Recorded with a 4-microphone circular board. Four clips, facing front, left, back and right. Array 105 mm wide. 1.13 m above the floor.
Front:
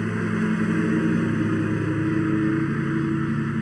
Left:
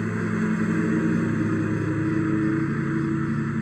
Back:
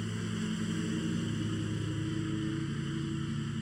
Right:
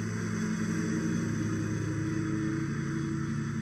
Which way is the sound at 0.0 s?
35° left.